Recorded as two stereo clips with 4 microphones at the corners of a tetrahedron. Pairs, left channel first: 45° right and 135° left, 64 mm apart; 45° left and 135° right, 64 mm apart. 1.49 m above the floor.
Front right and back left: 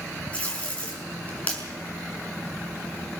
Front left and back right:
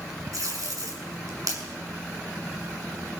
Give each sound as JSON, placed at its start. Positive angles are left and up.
{"t": 0.3, "sound": "tape being pulled", "azimuth_deg": -115, "distance_m": 6.0}